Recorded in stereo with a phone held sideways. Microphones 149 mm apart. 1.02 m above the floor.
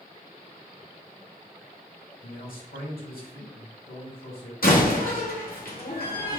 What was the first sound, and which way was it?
A man speaking, 80° left.